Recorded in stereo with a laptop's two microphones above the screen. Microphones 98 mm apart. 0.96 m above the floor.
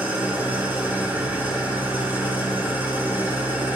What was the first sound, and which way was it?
An engine running, 20° right (ahead or behind).